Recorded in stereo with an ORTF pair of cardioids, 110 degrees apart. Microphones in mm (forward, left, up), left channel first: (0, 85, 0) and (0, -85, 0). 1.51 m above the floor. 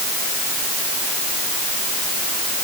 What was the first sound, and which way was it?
Only background noise.